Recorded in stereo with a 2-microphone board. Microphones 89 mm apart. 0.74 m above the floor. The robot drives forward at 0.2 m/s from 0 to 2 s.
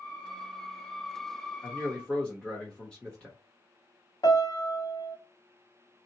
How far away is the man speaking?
About 0.9 m.